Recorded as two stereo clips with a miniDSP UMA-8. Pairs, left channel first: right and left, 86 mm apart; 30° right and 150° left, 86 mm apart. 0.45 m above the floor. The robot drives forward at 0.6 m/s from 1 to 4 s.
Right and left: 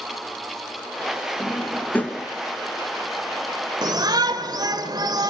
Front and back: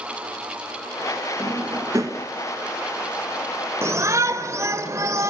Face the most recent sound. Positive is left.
turn(degrees=105)